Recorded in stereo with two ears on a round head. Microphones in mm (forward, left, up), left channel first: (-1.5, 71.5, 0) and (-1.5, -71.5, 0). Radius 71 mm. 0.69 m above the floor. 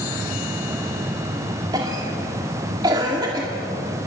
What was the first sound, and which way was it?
A cough, 25° right (ahead or behind).